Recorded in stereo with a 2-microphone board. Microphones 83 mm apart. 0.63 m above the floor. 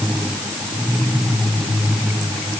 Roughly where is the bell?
I don't hear a bell.